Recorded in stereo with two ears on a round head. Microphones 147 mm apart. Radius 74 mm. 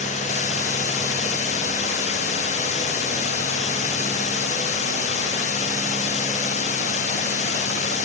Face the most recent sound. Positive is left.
turn(degrees=45)  # may be behind; listen again after turning